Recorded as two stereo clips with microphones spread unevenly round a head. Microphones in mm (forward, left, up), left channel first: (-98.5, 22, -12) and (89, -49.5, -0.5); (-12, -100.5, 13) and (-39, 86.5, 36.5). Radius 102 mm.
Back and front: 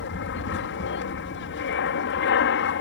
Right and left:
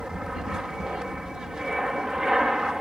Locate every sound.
0.0 s an aircraft: 175° right